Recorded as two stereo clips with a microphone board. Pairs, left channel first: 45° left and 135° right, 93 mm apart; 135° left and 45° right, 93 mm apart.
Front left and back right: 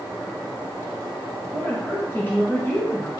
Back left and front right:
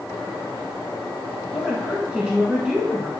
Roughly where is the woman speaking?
Ahead.